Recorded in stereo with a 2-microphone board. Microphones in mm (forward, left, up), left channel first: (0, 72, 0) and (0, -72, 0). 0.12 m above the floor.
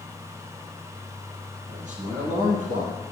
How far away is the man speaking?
About 3 m.